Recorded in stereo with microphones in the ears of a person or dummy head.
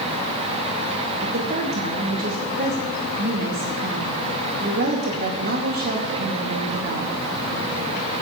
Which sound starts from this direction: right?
A woman speaking, at 1.2 s.